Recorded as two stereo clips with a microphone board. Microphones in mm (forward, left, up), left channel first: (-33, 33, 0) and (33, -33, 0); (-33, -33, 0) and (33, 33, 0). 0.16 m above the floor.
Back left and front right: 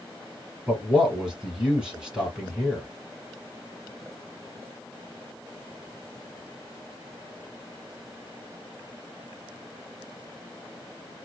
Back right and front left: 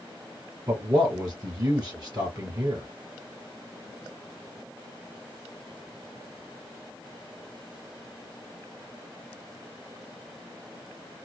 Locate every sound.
0.7 s a man speaking: 35° left, 1.4 m